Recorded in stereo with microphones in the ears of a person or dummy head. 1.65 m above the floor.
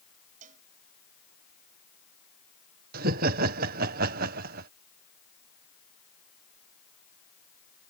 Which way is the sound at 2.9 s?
45° right (ahead or behind).